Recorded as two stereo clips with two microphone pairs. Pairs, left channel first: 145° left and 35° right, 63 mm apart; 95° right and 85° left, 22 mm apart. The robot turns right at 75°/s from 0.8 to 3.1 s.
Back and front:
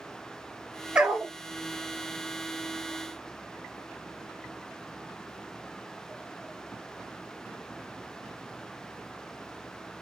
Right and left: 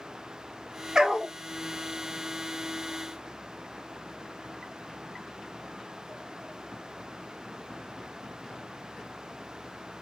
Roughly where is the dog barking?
Ahead left.